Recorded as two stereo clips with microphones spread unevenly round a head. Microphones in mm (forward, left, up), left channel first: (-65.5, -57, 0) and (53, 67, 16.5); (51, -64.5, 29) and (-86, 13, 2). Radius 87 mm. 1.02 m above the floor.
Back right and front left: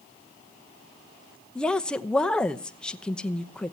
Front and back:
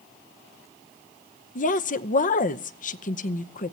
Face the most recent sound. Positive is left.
turn(degrees=-55)